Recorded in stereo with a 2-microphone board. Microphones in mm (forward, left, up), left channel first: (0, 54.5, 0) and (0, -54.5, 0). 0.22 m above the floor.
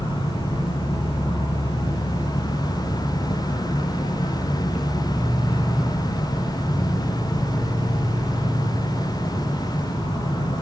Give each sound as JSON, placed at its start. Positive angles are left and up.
{"t": 0.0, "sound": "an insect", "side_deg": 60, "distance_m": 1.3}